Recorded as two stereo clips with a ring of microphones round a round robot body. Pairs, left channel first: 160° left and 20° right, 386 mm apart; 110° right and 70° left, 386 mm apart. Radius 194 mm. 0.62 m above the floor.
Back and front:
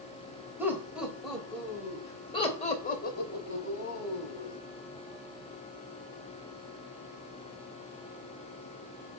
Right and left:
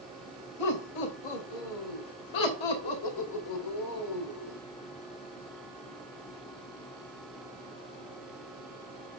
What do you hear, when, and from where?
0.6 s laughter: 105° right, 3 m; by 4.6 s 155° right, 2.5 m